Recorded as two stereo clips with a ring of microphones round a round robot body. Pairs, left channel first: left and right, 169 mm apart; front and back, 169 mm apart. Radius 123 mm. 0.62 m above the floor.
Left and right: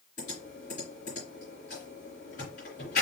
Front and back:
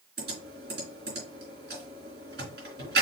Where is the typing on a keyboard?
150° left, 3 m.